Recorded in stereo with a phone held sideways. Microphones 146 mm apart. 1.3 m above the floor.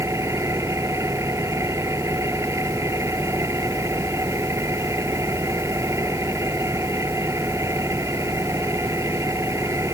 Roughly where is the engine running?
Centre.